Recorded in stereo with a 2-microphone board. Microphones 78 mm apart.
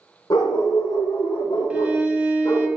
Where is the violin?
15° right (ahead or behind), 1.0 m.